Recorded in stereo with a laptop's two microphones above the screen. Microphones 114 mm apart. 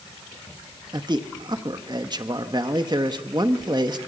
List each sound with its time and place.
0.9 s a man speaking: 40° right (ahead or behind), 1.7 m